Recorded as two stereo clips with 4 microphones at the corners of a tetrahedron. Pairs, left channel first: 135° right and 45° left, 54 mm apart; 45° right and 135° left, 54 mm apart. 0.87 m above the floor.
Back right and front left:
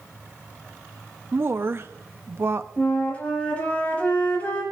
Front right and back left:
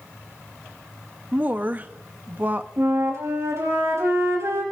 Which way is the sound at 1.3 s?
80° left.